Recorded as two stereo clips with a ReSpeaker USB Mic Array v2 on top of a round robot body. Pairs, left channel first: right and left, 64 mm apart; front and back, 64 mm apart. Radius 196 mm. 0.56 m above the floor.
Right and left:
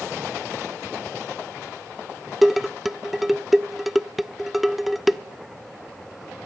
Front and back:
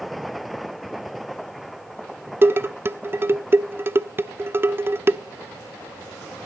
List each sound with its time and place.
2.4 s dishes clattering: 175° left, 0.6 m